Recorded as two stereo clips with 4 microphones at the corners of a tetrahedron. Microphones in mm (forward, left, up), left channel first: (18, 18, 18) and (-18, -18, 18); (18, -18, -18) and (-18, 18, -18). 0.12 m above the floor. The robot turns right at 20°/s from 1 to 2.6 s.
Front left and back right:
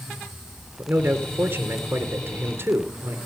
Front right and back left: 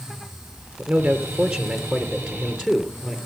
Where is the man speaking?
175° left, 2.5 m; by 3.2 s 150° right, 2.5 m.